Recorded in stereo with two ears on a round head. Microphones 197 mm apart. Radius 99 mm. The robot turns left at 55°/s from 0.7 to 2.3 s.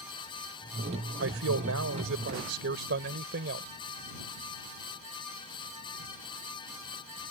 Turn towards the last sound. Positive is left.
turn(degrees=-125)